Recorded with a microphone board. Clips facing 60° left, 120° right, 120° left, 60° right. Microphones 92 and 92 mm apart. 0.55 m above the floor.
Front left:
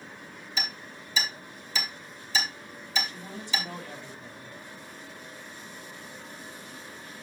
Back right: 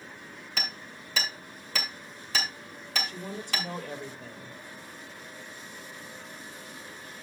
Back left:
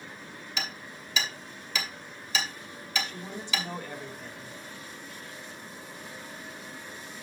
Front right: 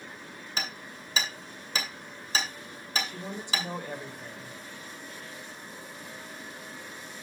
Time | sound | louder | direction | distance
0.6 | hammering | front left 2 dB, front right 1 dB | 110° right | 2 m
3.0 | a woman speaking | back right 3 dB, front right 1 dB | 135° right | 2.5 m